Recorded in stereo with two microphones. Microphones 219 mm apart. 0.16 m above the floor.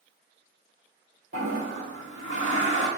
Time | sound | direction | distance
1.3 | a toilet flushing | 75° right (ahead or behind) | 0.9 m